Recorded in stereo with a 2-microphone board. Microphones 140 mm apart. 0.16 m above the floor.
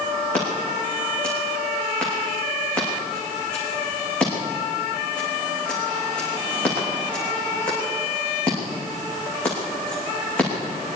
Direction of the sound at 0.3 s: 5° left (ahead or behind).